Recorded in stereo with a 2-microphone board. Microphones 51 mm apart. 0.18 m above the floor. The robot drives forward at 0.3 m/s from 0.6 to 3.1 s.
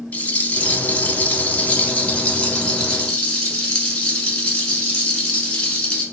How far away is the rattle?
About 0.5 m.